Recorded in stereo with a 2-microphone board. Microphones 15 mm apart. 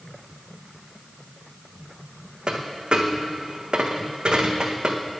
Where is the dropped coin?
65° right (ahead or behind), 1.3 m.